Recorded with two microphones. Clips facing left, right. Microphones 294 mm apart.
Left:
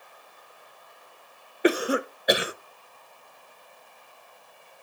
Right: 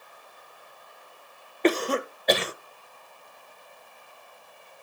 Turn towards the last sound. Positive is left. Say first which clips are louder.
# left 1 dB
turn(degrees=10)  # may be behind; listen again after turning